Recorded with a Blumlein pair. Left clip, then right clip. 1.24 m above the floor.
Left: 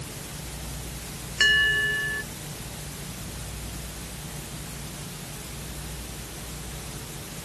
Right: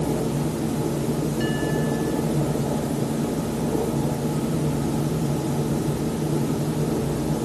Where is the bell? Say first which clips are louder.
Left 10 dB; 35° left.